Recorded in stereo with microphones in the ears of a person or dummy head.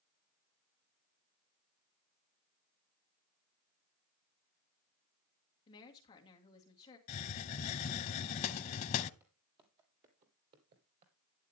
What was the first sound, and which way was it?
A woman speaking, 30° left (ahead or behind).